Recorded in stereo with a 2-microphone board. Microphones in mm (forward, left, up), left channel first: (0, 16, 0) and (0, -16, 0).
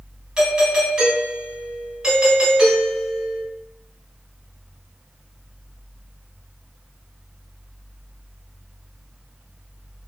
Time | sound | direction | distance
0.4 | a doorbell | 25° right (ahead or behind) | 1.5 m